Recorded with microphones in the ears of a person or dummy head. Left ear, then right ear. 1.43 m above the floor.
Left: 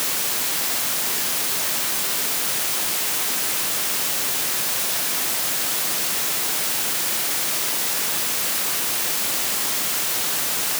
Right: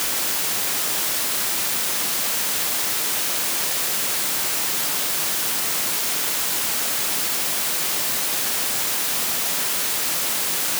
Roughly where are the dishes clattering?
No dishes clattering in this recording.